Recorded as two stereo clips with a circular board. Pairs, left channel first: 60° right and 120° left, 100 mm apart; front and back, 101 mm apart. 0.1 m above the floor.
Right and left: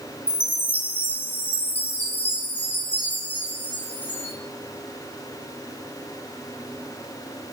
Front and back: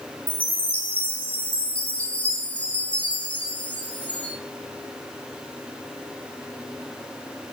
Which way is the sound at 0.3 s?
40° right.